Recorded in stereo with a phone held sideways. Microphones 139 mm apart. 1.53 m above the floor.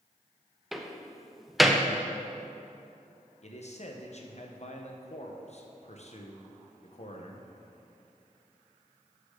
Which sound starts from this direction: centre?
A door slam, at 0.7 s.